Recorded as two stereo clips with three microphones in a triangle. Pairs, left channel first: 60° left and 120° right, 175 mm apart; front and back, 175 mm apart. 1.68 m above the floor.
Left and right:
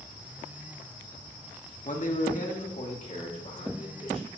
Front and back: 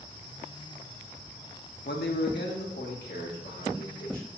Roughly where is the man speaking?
Ahead.